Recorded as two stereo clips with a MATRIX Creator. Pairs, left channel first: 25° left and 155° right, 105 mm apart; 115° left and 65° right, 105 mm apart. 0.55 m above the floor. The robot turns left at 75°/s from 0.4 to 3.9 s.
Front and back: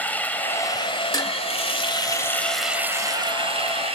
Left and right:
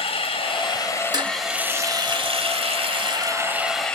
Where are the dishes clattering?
20° right, 0.9 m; by 1.3 s 35° right, 0.9 m.